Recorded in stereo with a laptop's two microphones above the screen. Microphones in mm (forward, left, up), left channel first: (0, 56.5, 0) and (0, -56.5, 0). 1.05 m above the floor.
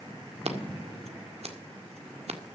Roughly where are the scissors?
Right.